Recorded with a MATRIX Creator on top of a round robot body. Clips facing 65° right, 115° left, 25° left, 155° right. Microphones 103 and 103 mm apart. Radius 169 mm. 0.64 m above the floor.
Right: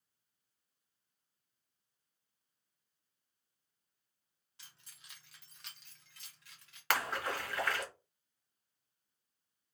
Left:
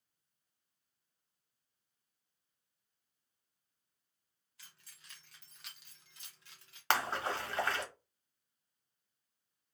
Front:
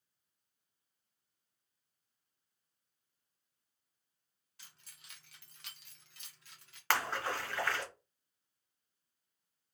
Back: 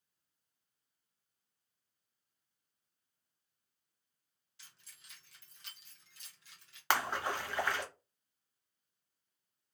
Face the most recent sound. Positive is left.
turn(degrees=145)